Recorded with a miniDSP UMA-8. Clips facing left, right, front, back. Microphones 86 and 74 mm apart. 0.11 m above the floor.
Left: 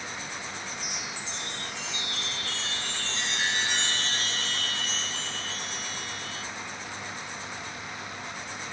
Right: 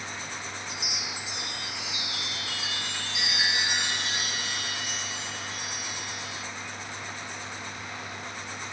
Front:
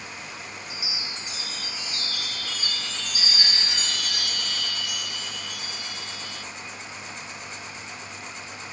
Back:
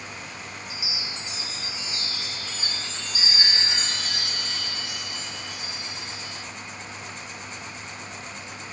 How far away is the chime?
About 1.4 m.